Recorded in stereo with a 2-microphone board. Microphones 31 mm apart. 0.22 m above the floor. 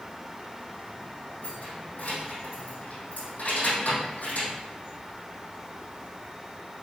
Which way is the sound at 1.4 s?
60° left (ahead or behind).